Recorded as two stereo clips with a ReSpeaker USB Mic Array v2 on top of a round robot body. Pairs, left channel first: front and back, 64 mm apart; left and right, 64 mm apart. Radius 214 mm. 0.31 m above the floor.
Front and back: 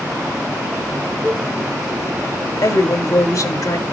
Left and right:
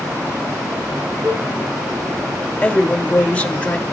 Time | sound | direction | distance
1.2 | a cowbell | 80° right | 5.5 m
2.6 | a woman speaking | 20° left | 2.5 m